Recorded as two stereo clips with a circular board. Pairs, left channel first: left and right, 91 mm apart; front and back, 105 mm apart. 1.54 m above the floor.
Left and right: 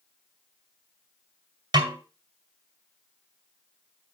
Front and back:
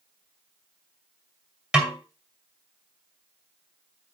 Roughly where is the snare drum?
Right.